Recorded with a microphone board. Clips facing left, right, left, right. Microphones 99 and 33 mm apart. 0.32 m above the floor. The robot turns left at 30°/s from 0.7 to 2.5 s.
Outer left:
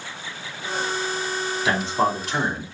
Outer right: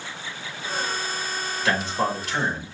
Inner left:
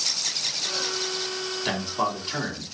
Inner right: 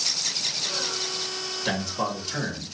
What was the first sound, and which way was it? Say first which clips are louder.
A man speaking: outer left 2 dB, inner left 1 dB; 15° left (ahead or behind).